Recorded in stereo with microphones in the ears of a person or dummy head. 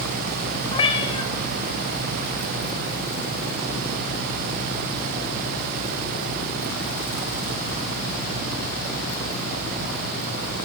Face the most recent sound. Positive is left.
turn(degrees=30)  # may be behind; listen again after turning